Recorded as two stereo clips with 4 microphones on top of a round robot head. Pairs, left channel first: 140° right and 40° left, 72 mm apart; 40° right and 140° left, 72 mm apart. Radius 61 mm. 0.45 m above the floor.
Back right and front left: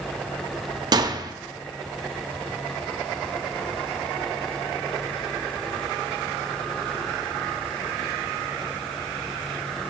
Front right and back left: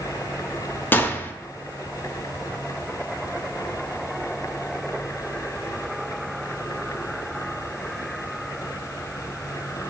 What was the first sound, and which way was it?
A gunshot, 20° left.